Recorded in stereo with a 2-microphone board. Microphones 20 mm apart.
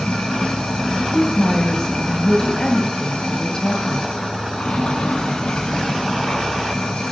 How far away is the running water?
About 7 m.